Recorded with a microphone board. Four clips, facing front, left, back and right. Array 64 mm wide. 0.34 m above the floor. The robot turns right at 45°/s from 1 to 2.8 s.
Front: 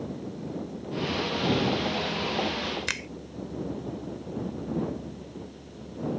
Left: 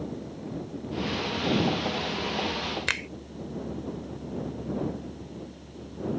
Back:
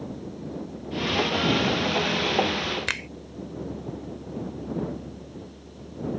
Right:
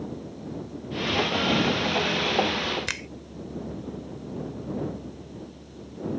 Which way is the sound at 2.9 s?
130° left.